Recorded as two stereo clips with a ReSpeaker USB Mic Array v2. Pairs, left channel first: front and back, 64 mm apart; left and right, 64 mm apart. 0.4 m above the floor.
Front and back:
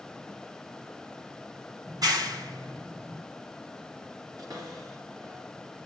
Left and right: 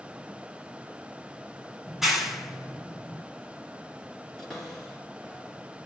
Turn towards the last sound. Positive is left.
turn(degrees=170)